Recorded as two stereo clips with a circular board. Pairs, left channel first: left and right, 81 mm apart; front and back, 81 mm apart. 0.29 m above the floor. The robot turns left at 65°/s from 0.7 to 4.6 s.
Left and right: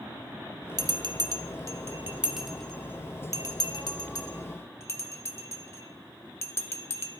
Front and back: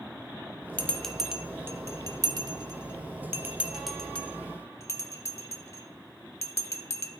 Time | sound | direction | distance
0.8 | a bell | 70° right | 0.6 m